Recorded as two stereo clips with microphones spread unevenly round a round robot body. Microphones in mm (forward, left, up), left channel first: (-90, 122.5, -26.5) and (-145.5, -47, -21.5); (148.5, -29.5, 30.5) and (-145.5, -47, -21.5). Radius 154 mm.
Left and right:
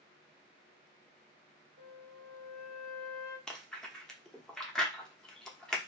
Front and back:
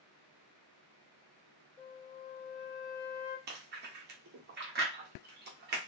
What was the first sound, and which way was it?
A flute, 80° right.